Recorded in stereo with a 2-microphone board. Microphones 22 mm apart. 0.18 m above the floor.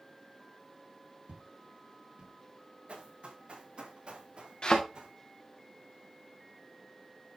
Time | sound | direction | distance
1.3 | footsteps | 70° right (ahead or behind) | 5 m
2.9 | running footsteps | 70° right (ahead or behind) | 7 m
4.6 | a thud | 30° left (ahead or behind) | 3.5 m